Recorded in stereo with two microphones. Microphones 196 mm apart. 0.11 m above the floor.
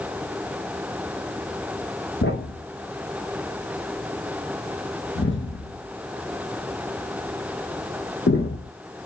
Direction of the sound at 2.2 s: 75° left (ahead or behind).